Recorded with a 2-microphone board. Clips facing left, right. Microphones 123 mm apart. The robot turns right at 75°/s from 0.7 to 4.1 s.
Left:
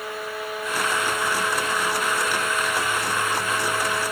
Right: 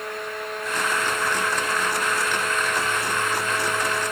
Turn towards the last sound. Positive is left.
No sound to turn to.